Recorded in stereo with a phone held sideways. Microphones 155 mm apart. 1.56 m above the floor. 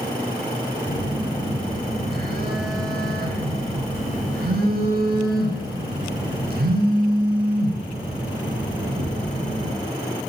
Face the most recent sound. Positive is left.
turn(degrees=-80)